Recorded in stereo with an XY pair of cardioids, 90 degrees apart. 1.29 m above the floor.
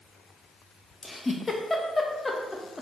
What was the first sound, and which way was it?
A giggle, 25° left.